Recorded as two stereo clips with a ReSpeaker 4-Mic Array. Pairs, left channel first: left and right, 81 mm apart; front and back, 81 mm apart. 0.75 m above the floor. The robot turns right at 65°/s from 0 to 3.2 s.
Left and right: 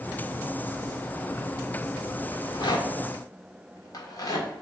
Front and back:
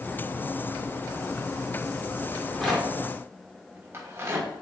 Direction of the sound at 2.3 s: 65° left.